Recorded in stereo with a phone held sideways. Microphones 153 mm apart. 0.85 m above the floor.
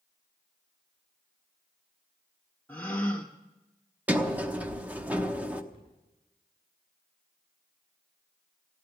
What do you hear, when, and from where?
2.7 s a gasp: 10° left (ahead or behind), 1.4 m
4.1 s a sliding door: 10° right (ahead or behind), 0.9 m
5.7 s a cupboard door: 35° right (ahead or behind), 6.5 m